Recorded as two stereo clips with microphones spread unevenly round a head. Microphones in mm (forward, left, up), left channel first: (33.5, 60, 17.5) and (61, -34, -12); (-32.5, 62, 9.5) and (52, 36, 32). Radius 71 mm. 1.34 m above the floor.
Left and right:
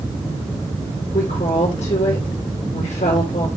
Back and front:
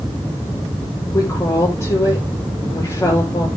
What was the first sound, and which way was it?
A woman speaking, 110° left.